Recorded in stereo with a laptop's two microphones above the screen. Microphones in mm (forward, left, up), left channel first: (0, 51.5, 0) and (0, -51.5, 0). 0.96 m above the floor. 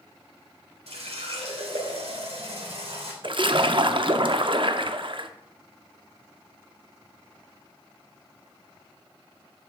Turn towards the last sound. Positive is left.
turn(degrees=-55)  # may be behind; listen again after turning